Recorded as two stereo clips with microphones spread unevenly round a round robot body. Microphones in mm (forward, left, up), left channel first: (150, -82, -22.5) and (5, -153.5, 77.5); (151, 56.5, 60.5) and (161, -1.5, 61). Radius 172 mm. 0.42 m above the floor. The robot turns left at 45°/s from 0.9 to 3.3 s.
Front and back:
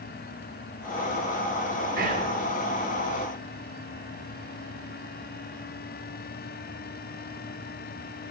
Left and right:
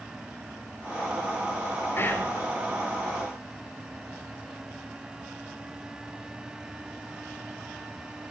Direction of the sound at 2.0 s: 140° left.